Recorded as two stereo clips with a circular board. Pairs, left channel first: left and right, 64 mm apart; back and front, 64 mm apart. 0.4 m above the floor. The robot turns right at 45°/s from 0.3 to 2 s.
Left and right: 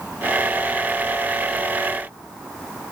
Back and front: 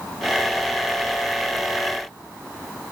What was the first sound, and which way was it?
Only background noise.